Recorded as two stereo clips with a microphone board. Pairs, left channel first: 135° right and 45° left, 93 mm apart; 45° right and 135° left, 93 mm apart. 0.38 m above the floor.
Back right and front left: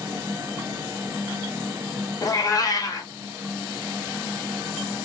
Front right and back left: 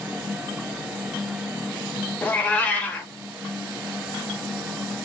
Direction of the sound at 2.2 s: 110° right.